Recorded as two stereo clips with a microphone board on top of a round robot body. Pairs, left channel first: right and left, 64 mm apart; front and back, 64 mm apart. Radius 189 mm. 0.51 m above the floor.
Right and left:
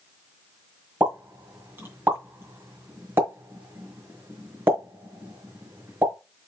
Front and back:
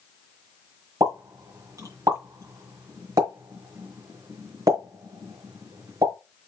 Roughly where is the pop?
Behind left.